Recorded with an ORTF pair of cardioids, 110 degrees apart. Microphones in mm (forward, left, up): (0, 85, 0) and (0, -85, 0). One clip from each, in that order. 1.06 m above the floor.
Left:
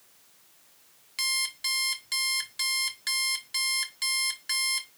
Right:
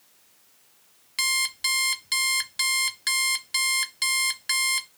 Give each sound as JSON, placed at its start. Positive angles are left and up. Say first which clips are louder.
{"t": 1.2, "sound": "an alarm clock", "louder": "right 4 dB", "azimuth_deg": -30, "distance_m": 0.9}